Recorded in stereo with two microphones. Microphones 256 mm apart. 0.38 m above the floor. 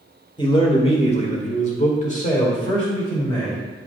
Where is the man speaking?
20° left (ahead or behind), 1.4 m; by 3.6 s 25° left (ahead or behind), 1.9 m.